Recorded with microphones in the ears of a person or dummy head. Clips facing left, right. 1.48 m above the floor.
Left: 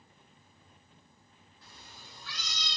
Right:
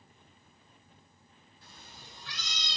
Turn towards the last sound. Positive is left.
turn(degrees=-20)  # may be behind; listen again after turning